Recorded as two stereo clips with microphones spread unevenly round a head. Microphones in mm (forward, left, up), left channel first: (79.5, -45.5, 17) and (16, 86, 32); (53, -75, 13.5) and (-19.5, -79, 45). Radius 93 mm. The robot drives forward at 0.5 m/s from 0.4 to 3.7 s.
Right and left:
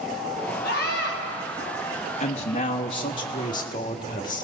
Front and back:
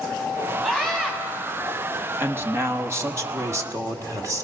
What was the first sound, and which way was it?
A scream, 95° right.